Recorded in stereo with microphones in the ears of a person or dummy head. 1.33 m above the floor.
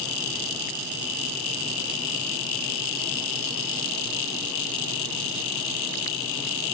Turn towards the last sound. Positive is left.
No sound to turn to.